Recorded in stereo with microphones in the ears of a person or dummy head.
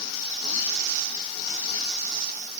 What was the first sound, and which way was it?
Only background noise.